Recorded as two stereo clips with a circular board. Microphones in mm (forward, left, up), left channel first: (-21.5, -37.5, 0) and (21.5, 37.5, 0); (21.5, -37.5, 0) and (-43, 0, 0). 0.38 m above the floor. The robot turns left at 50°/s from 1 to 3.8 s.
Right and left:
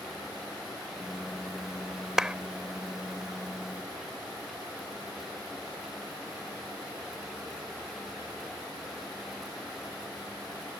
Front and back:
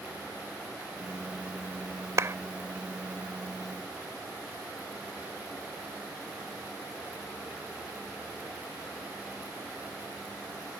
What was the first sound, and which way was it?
A clap, 140° left.